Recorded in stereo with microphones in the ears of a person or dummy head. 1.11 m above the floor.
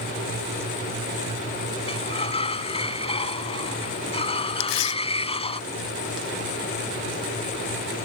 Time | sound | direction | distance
1.9 | a sliding door | 35° left (ahead or behind) | ?
4.6 | tearing paper | 80° left | ?